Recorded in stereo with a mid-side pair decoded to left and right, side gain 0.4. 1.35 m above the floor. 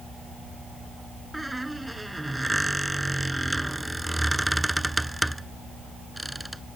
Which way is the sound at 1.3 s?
10° right.